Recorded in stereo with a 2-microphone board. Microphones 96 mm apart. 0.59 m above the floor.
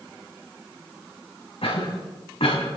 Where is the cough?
75° left (ahead or behind), 4 m.